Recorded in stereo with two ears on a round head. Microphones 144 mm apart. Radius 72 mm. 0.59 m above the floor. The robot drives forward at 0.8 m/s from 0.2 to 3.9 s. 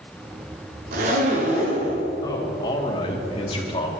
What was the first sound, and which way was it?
A zipper, 60° right (ahead or behind).